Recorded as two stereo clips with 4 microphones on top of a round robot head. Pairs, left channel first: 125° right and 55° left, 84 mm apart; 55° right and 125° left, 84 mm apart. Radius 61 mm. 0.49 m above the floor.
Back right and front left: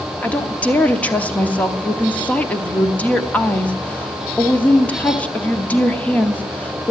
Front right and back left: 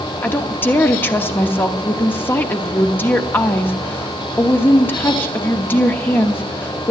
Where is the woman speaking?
80° right, 1.0 m.